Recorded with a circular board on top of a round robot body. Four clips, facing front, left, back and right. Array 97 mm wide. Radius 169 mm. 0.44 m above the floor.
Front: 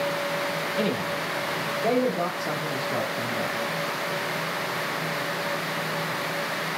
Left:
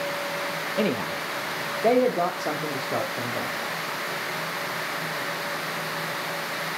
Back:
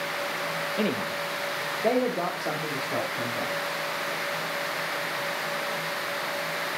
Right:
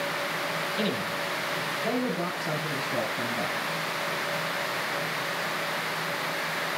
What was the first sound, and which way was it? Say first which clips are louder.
A man speaking: left 7 dB, front 1 dB; 105° left.